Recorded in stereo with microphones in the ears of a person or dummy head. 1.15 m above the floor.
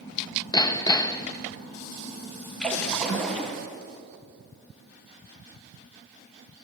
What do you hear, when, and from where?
0.5 s hammering: 25° left (ahead or behind), 1.1 m
2.6 s a splash: 10° left (ahead or behind), 4.5 m